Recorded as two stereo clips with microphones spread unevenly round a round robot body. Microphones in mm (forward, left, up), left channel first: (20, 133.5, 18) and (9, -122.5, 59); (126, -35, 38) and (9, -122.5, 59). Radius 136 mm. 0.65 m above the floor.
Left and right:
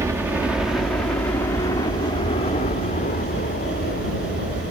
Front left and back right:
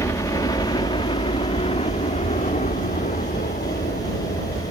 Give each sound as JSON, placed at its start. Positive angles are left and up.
{"t": 0.0, "sound": "a helicopter", "azimuth_deg": -10}